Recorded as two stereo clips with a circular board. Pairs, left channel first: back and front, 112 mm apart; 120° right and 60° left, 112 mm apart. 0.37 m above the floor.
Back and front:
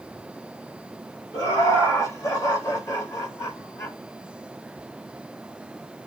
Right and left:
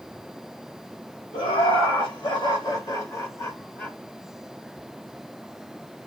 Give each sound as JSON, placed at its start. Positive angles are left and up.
{"t": 1.3, "sound": "laughter", "azimuth_deg": -125, "distance_m": 2.0}